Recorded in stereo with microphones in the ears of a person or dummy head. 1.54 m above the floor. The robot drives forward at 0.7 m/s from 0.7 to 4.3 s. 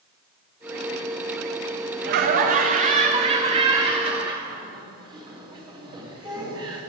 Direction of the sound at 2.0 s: 55° right (ahead or behind).